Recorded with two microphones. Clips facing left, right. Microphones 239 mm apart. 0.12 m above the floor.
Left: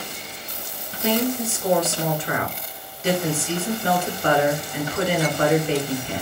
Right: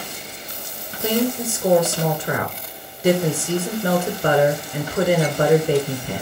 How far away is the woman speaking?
About 1.2 m.